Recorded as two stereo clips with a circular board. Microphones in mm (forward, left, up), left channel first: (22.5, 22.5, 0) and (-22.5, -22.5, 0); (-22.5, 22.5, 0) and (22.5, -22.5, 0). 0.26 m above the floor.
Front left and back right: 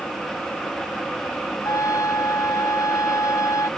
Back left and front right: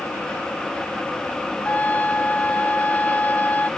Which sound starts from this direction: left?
A trumpet, at 1.6 s.